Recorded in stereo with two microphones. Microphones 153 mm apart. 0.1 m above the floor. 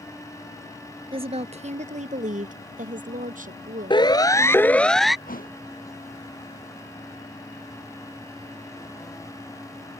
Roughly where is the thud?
Left.